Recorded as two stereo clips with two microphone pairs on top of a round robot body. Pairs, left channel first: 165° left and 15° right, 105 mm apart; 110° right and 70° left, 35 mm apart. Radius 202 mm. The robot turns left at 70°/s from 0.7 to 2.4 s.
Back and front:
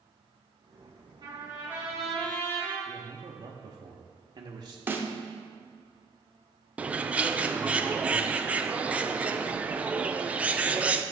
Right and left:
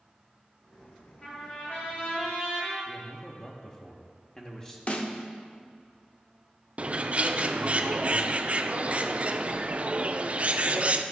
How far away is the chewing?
No chewing in this recording.